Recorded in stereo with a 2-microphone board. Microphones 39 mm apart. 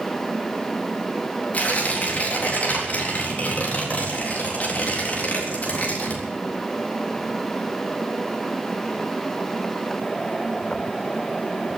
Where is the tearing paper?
45° left (ahead or behind), 3.5 m.